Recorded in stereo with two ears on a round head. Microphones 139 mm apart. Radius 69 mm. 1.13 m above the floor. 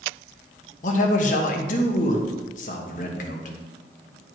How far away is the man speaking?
About 1.2 m.